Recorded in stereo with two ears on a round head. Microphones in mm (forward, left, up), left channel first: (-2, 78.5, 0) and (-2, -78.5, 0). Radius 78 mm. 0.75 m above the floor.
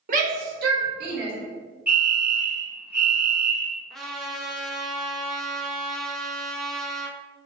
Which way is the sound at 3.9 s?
Centre (ahead or behind).